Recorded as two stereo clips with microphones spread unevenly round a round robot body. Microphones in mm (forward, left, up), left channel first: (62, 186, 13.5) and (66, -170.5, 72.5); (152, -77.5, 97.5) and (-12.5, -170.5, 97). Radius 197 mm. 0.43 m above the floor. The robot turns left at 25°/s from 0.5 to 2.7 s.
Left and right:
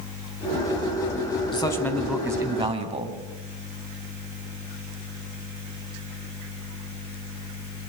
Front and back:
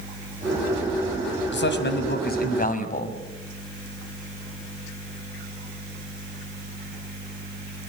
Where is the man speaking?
15° left, 3.5 m; by 3.2 s 15° right, 3.5 m.